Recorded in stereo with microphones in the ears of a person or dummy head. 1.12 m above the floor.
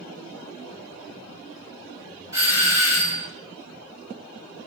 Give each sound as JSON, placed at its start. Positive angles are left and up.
{"t": 2.3, "sound": "a doorbell", "side_deg": -20, "distance_m": 1.0}